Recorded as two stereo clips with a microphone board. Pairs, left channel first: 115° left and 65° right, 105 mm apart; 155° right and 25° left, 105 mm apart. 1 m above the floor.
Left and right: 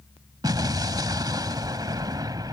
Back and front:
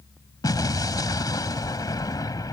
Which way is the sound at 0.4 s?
110° right.